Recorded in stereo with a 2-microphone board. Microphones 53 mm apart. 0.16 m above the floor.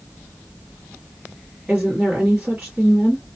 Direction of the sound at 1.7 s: 30° right (ahead or behind).